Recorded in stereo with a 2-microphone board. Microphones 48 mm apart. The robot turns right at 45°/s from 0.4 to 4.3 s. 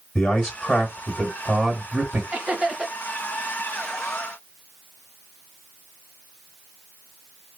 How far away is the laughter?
About 1.3 m.